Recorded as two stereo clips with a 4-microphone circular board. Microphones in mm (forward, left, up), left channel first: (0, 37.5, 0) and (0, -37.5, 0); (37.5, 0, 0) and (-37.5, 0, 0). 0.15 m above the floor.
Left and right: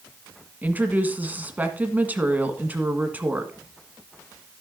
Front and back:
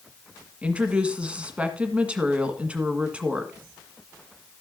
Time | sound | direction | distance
0.6 | a woman speaking | 125° right | 1.6 m